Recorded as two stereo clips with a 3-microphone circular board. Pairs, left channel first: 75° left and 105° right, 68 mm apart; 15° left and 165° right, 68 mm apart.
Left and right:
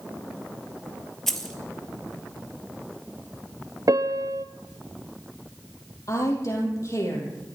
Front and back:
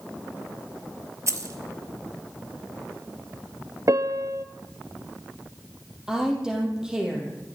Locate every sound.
1.3 s keys jangling: 160° left, 1.5 m
3.9 s a piano: 135° right, 0.7 m
6.1 s a woman speaking: 115° left, 4 m